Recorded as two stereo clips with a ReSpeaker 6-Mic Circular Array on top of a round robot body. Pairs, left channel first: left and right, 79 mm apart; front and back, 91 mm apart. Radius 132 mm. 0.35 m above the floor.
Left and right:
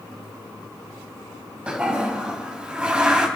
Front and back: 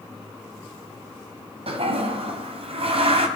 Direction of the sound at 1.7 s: 170° right.